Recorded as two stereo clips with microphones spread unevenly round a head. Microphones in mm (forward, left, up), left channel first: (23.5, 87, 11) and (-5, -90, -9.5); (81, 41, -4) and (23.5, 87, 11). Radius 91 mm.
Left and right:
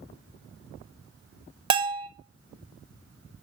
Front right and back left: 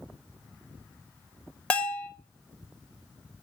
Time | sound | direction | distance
1.7 | a bell | 120° right | 0.9 m